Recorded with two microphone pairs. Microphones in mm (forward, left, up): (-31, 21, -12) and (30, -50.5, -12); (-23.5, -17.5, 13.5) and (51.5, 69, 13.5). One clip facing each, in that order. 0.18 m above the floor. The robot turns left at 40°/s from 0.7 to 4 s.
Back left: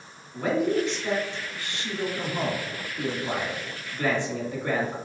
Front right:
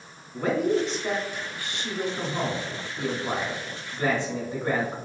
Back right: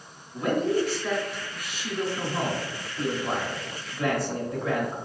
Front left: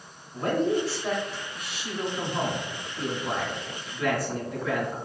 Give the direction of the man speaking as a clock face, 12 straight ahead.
11 o'clock.